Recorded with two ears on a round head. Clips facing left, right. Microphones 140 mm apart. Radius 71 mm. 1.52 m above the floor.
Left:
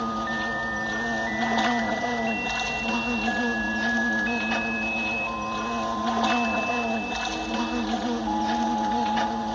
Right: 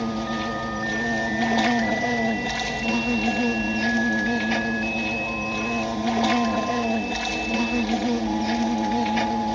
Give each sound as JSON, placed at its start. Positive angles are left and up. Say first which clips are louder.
{"t": 0.0, "sound": "an insect", "louder": "right 3 dB", "side_deg": -20}